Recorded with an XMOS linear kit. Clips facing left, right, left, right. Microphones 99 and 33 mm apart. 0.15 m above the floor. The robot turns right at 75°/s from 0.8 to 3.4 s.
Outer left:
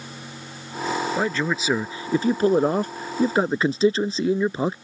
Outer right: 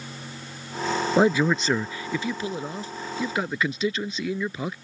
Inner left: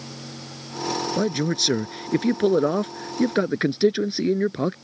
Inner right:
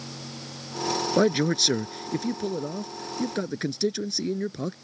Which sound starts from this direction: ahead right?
A man speaking, at 1.2 s.